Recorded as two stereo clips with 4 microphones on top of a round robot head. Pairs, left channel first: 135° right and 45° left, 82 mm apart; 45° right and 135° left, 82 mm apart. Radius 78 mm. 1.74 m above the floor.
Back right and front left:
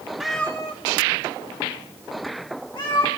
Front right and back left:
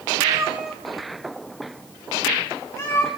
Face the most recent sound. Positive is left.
turn(degrees=-100)